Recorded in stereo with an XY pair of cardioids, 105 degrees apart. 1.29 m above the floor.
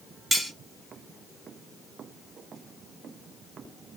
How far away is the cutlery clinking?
About 1.2 m.